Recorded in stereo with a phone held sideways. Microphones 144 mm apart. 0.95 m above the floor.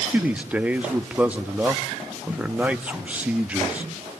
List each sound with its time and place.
0.1 s a man speaking: 10° right (ahead or behind), 1.1 m